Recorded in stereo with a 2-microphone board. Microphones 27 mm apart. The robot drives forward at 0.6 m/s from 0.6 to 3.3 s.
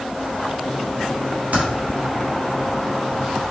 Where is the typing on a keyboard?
60° right (ahead or behind), 1.5 m; by 1.6 s 55° right (ahead or behind), 1.5 m.